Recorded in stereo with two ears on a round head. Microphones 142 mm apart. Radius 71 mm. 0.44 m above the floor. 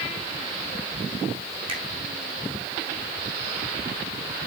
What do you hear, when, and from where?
1.7 s a finger snap: 35° right (ahead or behind), 5.5 m